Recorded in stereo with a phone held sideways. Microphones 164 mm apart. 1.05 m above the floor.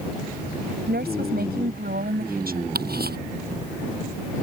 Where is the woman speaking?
75° right (ahead or behind); by 2.6 s 65° right (ahead or behind).